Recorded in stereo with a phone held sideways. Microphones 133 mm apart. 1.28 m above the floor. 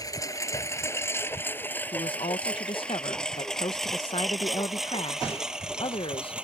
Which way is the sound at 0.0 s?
25° left (ahead or behind).